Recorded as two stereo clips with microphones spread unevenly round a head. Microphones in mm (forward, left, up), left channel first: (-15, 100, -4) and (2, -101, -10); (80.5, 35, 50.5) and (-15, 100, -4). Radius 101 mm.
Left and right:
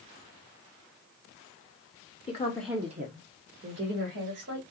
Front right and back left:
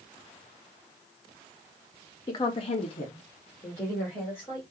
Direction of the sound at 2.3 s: 35° left.